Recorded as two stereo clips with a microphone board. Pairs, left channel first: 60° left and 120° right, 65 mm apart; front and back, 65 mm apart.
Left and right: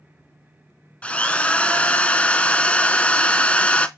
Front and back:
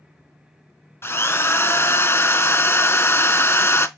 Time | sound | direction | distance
1.0 | a drill | 5° left | 0.5 m